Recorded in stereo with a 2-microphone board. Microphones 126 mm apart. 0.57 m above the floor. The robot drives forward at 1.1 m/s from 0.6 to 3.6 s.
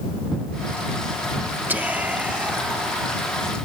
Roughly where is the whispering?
Centre.